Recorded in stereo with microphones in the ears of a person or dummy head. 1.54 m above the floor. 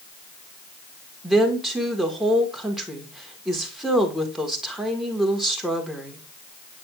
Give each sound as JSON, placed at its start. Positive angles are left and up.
{"t": 1.2, "sound": "a woman speaking", "side_deg": 0, "distance_m": 1.3}